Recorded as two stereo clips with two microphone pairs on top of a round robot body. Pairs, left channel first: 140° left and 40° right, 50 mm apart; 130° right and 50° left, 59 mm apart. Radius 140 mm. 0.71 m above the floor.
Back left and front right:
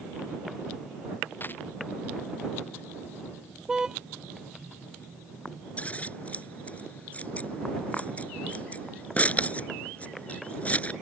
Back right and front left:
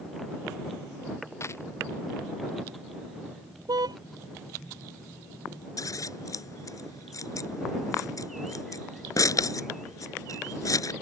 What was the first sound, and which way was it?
A dropped coin, 170° right.